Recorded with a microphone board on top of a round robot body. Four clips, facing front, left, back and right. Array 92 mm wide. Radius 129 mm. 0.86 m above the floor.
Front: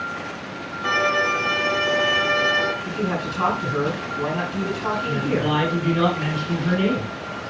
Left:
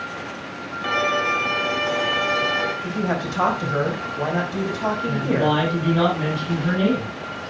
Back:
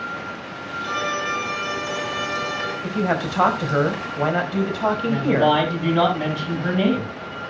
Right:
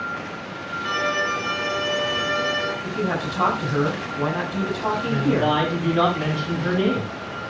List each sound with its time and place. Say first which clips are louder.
0.8 s a violin: left 2 dB, front 5 dB; 60° left, 2.5 m
2.8 s a man speaking: left 1 dB, back 3 dB; 165° left, 4.5 m
5.0 s a woman speaking: even, back 6 dB; straight behind, 8.5 m